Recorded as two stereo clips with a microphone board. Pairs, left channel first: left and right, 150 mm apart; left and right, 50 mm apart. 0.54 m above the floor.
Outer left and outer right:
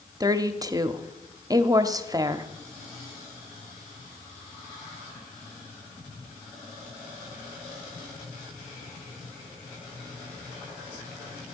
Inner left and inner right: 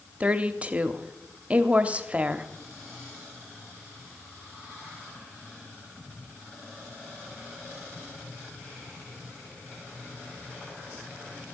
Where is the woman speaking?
25° right (ahead or behind), 0.7 m.